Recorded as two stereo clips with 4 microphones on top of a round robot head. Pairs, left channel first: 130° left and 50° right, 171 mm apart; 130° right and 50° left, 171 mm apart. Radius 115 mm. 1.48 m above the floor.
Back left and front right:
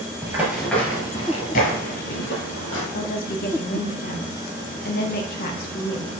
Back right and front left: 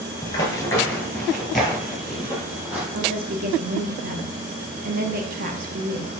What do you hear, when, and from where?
0.2 s running footsteps: 90° right, 1.5 m; by 2.8 s 135° left, 2.5 m
2.9 s a woman speaking: 90° left, 1.0 m